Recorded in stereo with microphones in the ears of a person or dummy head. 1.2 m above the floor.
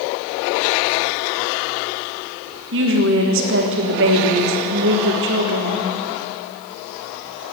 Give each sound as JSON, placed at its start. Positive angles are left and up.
{"t": 2.7, "sound": "a woman speaking", "side_deg": -60, "distance_m": 1.4}